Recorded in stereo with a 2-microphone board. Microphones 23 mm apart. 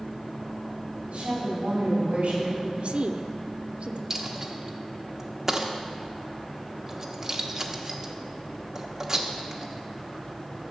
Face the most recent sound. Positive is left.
turn(degrees=-25)  # may be behind; listen again after turning